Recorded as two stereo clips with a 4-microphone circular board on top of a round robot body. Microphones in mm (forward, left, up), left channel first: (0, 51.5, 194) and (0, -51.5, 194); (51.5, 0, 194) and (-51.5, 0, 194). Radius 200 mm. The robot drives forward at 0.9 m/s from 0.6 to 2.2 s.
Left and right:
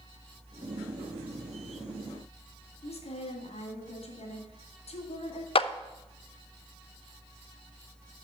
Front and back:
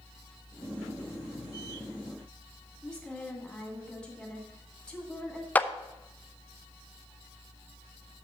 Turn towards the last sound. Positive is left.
turn(degrees=75)